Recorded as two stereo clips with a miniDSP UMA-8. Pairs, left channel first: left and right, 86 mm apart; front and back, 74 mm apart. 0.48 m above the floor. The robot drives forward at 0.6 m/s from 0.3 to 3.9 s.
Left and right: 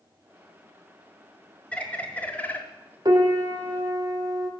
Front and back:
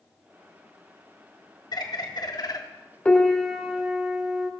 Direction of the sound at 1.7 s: 15° left.